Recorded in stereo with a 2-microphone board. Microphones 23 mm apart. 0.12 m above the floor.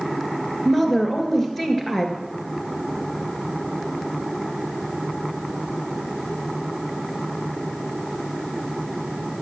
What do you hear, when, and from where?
0.7 s a woman speaking: 15° left (ahead or behind), 1.9 m